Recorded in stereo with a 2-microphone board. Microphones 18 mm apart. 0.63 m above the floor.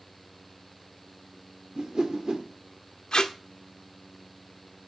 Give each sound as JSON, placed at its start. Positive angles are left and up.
{"t": 1.8, "sound": "a whoosh", "side_deg": -55, "distance_m": 1.6}
{"t": 3.1, "sound": "tape being pulled", "side_deg": 50, "distance_m": 1.2}